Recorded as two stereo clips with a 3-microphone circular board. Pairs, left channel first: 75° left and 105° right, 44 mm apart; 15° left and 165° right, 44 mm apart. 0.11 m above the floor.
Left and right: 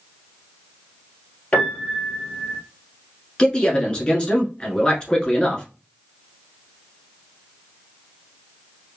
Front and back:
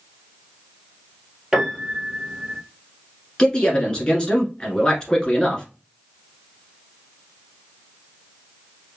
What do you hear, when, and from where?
1.5 s a piano: 120° left, 1.3 m
3.4 s a man speaking: 50° left, 1.1 m